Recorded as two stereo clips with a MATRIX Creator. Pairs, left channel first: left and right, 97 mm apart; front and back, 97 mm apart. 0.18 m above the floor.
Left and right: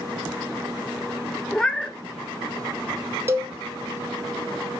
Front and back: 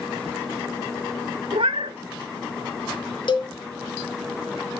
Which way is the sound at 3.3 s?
30° right.